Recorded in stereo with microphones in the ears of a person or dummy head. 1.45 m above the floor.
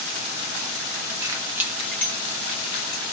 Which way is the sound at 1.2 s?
25° right (ahead or behind).